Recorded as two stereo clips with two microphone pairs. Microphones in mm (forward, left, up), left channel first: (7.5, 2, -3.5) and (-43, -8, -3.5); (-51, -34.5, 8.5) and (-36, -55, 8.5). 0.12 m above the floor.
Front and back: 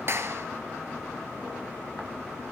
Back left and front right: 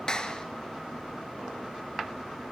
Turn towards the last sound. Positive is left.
turn(degrees=180)